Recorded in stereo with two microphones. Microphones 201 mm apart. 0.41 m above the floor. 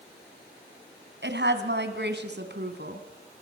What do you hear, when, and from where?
1.2 s a woman speaking: 60° right (ahead or behind), 3 m; by 3.0 s 55° right (ahead or behind), 4 m